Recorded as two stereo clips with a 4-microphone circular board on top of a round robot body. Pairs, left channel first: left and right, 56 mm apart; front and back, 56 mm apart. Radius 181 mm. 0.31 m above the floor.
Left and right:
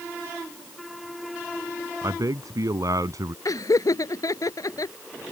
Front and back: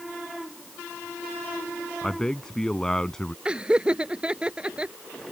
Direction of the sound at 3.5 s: 110° left.